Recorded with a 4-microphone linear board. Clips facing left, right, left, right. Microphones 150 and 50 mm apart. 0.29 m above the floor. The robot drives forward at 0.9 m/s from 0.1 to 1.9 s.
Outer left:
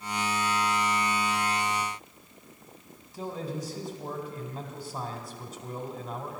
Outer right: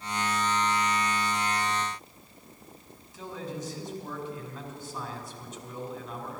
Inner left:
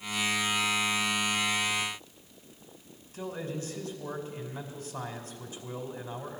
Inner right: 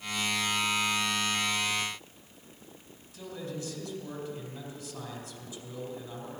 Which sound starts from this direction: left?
A man speaking, at 3.1 s.